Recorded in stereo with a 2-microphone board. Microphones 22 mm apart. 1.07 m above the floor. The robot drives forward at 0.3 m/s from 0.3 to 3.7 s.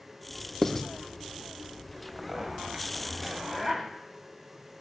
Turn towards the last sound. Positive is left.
turn(degrees=-30)  # may be behind; listen again after turning